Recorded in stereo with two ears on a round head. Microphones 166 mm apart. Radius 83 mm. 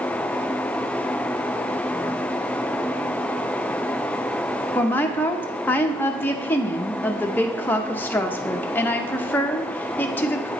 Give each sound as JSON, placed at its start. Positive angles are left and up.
{"t": 4.8, "sound": "a woman speaking", "side_deg": 10, "distance_m": 0.5}